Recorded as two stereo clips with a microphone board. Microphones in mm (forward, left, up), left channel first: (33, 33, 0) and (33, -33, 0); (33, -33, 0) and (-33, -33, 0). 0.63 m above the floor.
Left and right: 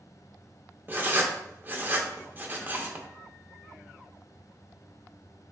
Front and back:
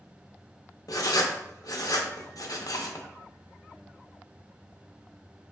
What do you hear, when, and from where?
0.9 s writing: 25° right, 0.6 m